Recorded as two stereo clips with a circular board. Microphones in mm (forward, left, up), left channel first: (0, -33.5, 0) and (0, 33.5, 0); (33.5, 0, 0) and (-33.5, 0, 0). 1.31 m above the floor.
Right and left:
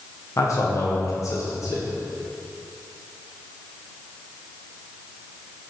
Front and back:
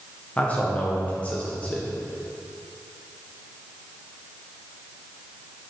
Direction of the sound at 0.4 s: 65° right.